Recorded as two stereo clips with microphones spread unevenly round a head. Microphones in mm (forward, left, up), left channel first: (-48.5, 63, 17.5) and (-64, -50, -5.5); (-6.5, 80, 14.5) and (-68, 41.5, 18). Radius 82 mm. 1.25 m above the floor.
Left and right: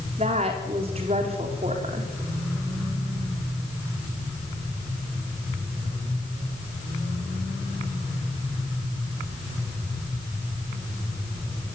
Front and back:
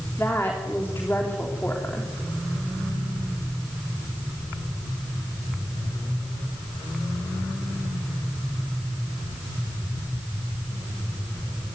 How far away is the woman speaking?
About 3.5 m.